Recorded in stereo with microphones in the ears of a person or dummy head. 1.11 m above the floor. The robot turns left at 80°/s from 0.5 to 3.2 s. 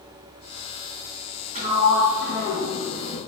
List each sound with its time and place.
1.6 s a sliding door: 140° right, 3 m; by 3.2 s 90° left, 3 m